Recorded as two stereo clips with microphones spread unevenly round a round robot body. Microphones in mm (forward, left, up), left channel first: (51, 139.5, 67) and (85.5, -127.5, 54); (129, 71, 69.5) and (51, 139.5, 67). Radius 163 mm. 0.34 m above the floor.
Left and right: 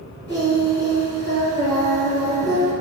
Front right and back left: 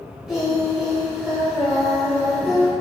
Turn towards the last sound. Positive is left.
turn(degrees=55)